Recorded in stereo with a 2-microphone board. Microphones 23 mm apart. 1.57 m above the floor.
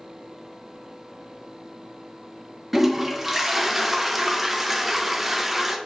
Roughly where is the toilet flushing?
Centre.